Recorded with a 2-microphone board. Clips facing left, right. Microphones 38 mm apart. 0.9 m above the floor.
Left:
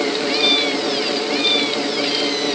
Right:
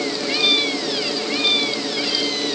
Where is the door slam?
No door slam in this recording.